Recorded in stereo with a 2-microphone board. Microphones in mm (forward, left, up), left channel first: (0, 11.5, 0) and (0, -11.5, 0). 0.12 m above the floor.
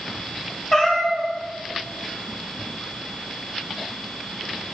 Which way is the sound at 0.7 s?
20° left (ahead or behind).